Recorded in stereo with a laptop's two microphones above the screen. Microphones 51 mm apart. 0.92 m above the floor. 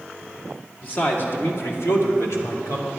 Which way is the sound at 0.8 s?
40° left (ahead or behind).